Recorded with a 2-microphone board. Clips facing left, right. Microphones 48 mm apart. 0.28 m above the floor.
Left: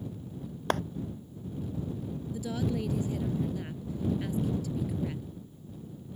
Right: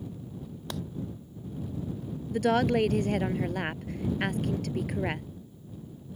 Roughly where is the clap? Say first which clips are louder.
Left 9 dB; left.